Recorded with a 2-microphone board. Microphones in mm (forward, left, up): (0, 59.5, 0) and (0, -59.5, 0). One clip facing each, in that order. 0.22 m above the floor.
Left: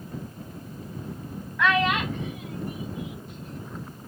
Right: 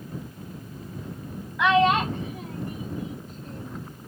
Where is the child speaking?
15° right (ahead or behind); by 3.9 s 40° right (ahead or behind).